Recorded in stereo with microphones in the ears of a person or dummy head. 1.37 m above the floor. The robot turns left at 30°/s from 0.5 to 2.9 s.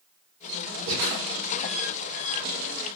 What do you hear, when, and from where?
0.9 s breathing: 50° right (ahead or behind), 1.3 m; by 1.2 s 45° right (ahead or behind), 1.3 m